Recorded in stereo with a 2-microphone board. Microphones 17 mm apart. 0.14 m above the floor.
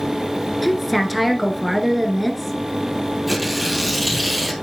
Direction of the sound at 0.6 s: 5° right (ahead or behind).